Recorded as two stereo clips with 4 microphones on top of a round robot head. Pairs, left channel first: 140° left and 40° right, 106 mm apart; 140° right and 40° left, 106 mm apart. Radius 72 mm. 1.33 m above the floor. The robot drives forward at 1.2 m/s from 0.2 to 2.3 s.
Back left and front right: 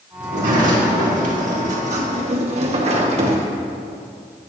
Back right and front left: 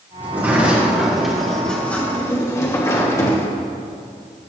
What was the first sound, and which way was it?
A sliding door, 35° right.